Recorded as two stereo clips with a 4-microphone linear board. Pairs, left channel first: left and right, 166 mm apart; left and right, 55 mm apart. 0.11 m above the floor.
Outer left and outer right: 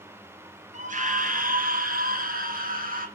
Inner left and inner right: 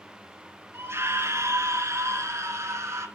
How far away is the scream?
About 1.7 m.